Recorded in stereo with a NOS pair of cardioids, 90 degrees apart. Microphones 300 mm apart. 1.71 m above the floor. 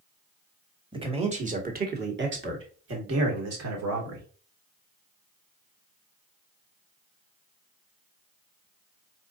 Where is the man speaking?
15° right, 1.9 m; by 4.2 s 65° right, 2.5 m.